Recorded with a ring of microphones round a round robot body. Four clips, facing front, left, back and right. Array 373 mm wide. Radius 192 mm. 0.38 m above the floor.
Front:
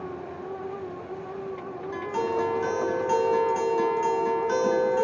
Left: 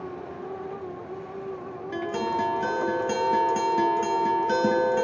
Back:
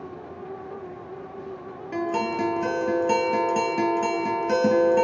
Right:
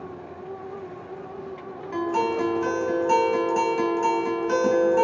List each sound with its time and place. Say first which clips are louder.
1.9 s a guitar: right 4 dB, back 2 dB; 145° left, 3 m